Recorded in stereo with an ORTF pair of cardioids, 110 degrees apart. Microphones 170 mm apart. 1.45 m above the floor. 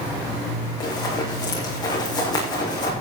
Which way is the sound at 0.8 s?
25° left.